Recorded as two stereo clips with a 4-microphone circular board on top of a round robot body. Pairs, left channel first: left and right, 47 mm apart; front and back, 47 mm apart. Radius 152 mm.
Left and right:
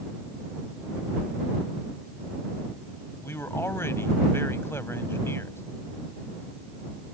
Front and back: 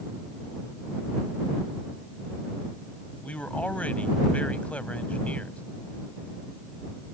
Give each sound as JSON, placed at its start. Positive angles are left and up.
{"t": 3.2, "sound": "a man speaking", "azimuth_deg": 60}